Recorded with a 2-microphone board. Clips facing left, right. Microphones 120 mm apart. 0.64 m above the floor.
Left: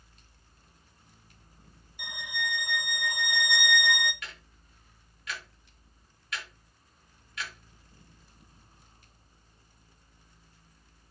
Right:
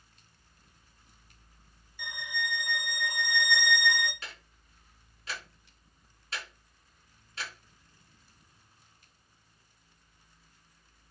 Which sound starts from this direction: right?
Ticking, at 4.2 s.